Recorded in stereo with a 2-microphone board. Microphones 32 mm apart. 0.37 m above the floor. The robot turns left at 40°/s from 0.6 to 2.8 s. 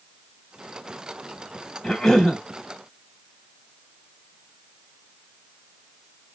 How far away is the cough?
About 0.9 m.